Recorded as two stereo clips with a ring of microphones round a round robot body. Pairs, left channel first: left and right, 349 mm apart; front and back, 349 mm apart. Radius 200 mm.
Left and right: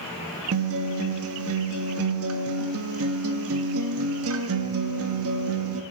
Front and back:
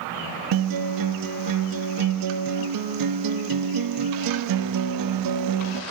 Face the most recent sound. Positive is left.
turn(degrees=-145)